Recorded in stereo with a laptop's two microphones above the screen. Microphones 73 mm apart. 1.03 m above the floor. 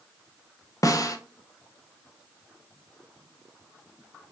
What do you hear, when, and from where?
0.8 s a snare drum: 50° left (ahead or behind), 0.6 m